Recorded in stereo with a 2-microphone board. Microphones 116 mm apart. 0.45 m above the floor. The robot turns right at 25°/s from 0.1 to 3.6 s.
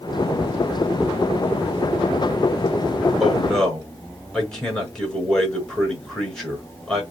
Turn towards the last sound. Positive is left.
turn(degrees=5)  # may be behind; listen again after turning